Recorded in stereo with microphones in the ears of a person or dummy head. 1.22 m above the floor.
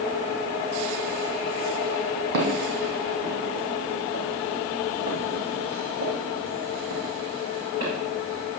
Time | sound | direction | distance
2.3 | footsteps | 70° right (ahead or behind) | 3 m